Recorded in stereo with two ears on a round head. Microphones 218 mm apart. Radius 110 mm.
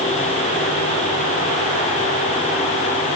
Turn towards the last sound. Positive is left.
No sound to turn to.